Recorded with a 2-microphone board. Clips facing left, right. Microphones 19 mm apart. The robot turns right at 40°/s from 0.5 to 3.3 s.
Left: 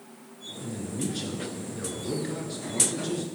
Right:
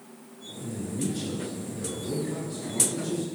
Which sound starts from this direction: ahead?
A man speaking, at 0.6 s.